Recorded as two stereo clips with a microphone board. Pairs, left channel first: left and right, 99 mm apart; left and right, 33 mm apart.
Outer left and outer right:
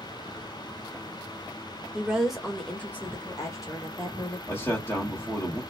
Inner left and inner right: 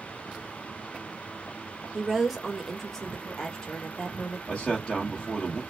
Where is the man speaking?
25° left (ahead or behind), 1.2 m.